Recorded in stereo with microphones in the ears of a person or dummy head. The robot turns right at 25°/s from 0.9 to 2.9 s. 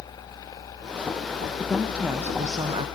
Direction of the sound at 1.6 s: Straight behind.